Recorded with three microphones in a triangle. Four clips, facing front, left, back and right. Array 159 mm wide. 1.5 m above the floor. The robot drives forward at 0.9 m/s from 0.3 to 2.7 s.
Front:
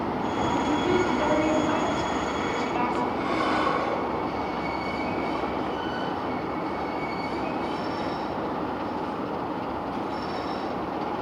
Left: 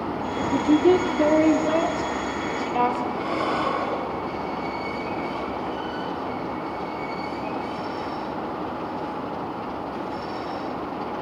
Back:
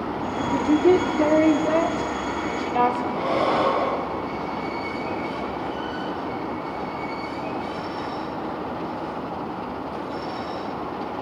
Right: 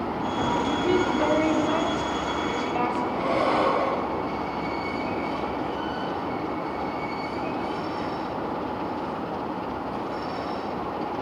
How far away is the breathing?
About 2.5 m.